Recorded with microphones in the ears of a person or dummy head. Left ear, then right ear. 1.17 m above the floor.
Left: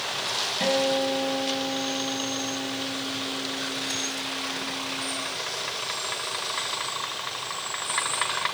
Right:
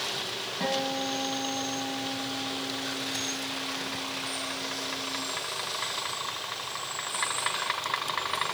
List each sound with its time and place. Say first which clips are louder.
0.6 s a guitar: left 5 dB; 15° left (ahead or behind), 3.5 m